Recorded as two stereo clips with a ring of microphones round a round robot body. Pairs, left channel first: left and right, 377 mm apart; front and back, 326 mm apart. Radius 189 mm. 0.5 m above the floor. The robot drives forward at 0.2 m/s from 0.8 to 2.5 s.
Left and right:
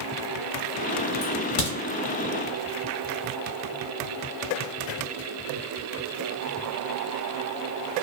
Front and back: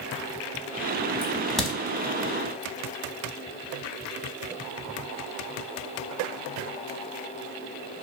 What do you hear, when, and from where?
1.2 s a crack: 85° left, 0.9 m; by 1.8 s 90° left, 0.9 m